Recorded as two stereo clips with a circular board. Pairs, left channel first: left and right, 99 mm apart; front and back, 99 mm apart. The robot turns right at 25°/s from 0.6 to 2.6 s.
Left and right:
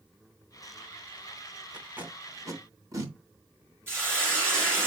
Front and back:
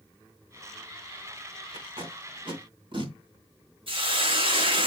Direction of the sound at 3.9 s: 155° right.